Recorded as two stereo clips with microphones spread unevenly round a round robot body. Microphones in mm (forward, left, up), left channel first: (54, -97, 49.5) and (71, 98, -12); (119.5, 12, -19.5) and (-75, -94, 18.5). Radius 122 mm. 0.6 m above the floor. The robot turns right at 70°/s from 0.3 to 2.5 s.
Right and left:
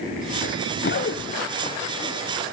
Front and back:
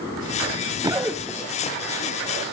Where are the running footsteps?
105° right, 1.0 m; by 2.4 s 10° left, 3 m.